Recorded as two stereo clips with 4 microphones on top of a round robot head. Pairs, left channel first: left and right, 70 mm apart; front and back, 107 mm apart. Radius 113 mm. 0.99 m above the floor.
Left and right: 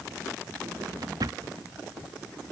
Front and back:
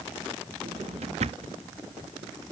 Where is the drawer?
140° right.